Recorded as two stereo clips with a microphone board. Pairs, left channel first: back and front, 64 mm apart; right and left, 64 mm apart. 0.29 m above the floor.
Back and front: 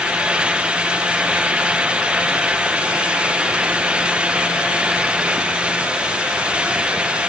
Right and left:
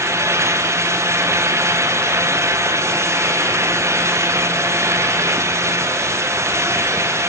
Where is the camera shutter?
I don't hear a camera shutter.